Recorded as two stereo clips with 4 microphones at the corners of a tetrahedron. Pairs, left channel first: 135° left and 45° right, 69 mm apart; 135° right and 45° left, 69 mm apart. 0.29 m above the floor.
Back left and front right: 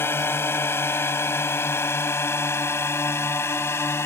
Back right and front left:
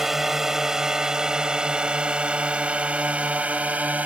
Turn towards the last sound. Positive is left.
turn(degrees=105)